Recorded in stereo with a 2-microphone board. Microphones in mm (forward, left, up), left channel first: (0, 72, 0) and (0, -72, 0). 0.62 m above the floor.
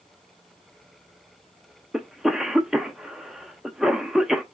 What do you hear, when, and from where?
1.9 s a cough: 5° right (ahead or behind), 0.5 m